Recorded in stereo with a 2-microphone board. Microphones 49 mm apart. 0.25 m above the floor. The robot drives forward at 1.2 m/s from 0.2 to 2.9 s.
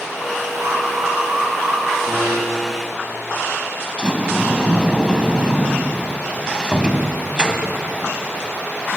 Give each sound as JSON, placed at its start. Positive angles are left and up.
{"t": 0.5, "sound": "an alarm", "side_deg": -75, "distance_m": 8.5}
{"t": 2.1, "sound": "a piano", "side_deg": -30, "distance_m": 7.5}
{"t": 4.0, "sound": "a sliding door", "side_deg": -20, "distance_m": 1.9}